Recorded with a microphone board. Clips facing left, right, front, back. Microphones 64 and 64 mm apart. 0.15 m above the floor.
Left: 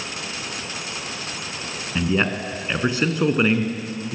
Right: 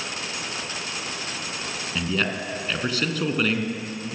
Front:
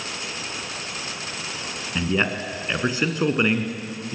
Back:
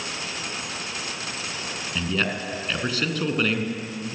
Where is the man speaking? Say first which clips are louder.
Left 5 dB, front 3 dB; 50° left, 1.8 m.